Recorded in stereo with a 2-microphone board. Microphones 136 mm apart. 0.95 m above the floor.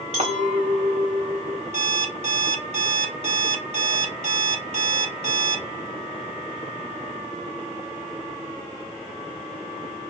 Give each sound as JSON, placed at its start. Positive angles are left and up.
{"t": 0.1, "sound": "a clink", "side_deg": -50, "distance_m": 1.3}
{"t": 1.7, "sound": "an alarm clock", "side_deg": -50, "distance_m": 1.3}